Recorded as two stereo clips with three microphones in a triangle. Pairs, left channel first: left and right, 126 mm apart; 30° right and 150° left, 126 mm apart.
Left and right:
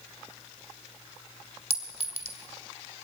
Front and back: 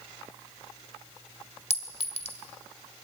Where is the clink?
60° right, 2.0 m.